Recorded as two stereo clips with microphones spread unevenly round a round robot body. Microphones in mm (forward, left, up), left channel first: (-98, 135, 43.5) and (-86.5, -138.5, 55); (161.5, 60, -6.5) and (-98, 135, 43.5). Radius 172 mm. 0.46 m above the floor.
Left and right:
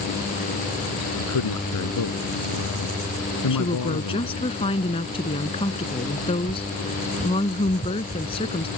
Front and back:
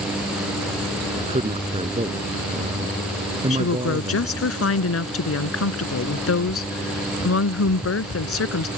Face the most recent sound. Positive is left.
turn(degrees=20)